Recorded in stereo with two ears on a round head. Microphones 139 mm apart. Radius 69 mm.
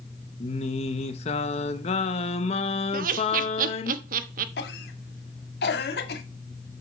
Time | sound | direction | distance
0.4 | singing | 40° left (ahead or behind) | 0.8 m
2.9 | laughter | 55° right (ahead or behind) | 1.0 m
4.6 | a cough | 75° left (ahead or behind) | 1.7 m